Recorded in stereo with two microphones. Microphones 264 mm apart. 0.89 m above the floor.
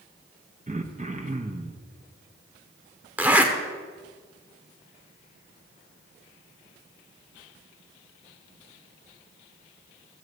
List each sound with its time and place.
0.7 s throat clearing: 30° right (ahead or behind), 0.7 m
3.2 s a zipper: 5° right (ahead or behind), 0.9 m